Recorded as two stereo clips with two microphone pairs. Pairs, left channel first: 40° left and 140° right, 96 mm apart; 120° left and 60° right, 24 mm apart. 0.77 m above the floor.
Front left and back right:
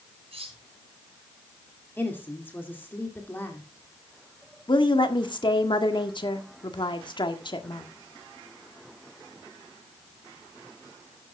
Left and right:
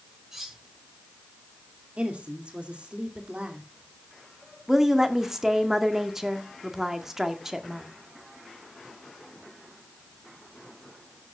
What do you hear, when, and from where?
0.3 s cutlery clinking: 135° right, 4 m
2.0 s a woman speaking: 30° right, 2.5 m
4.7 s a woman speaking: 10° left, 1.7 m